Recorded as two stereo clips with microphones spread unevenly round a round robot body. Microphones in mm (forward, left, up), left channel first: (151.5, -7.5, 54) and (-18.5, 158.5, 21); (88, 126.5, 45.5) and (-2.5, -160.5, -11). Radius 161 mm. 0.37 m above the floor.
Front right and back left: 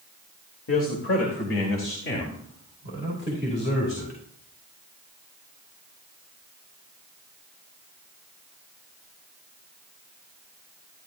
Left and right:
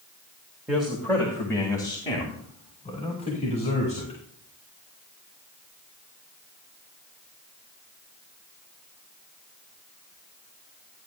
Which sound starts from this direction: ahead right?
A man speaking, at 0.7 s.